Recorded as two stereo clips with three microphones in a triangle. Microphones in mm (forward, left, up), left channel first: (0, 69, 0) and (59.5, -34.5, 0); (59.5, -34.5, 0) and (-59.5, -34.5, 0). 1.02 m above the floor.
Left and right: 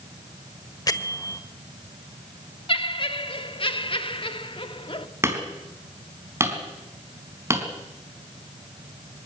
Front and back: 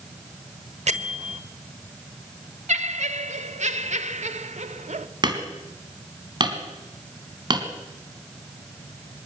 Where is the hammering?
125° right, 3.5 m.